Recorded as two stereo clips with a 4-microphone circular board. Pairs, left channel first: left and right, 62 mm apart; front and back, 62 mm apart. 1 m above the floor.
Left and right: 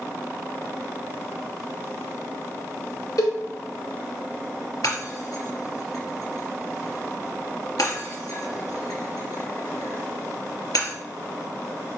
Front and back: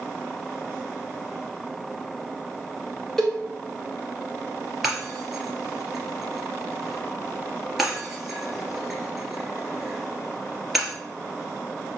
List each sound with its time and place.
3.2 s a cowbell: 85° left, 2.5 m
4.8 s breaking glass: 90° left, 3 m